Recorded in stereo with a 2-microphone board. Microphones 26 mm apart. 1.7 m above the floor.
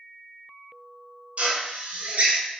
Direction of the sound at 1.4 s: 50° right (ahead or behind).